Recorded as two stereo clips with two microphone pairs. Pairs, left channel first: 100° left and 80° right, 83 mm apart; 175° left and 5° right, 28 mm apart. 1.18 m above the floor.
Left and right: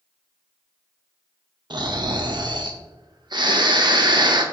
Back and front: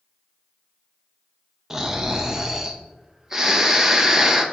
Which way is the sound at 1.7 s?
85° right.